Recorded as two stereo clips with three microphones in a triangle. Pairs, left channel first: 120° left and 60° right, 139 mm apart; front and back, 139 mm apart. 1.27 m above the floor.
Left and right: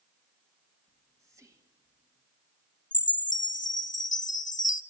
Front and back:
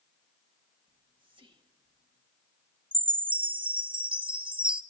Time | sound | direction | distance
0.9 | whispering | 125° right | 2 m
2.9 | a chime | 130° left | 0.7 m